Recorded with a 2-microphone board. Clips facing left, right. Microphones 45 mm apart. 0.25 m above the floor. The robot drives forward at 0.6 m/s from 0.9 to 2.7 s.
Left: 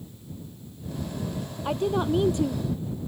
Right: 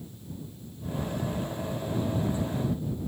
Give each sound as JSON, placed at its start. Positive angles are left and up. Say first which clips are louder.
{"t": 1.6, "sound": "a woman speaking", "louder": "left 10 dB", "side_deg": 75}